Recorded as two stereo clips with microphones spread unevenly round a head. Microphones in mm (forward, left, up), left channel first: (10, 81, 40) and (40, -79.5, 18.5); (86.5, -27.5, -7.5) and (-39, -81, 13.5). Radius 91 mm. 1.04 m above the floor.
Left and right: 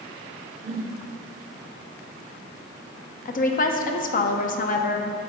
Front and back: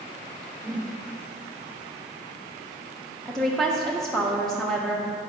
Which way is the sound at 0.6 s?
75° right.